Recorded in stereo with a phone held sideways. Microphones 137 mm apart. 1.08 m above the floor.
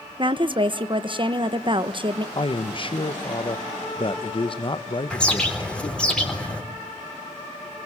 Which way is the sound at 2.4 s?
40° left (ahead or behind).